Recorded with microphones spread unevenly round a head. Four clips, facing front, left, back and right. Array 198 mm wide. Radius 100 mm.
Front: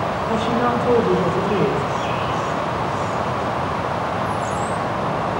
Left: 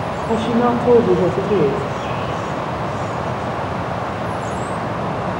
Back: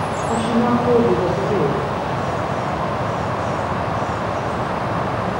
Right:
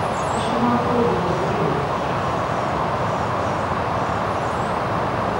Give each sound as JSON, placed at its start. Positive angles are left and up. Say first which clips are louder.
{"t": 0.3, "sound": "a woman speaking", "louder": "left 5 dB, back 2 dB", "azimuth_deg": 100, "distance_m": 5.5}